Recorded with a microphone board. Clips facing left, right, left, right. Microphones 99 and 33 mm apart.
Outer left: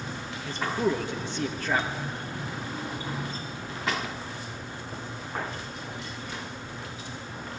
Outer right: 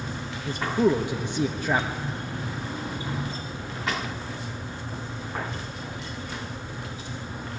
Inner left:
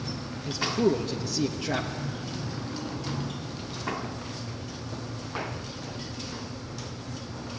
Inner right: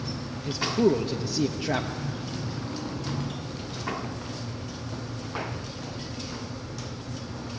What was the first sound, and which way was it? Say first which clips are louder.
A man speaking: outer right 5 dB, inner right 2 dB; 15° right (ahead or behind).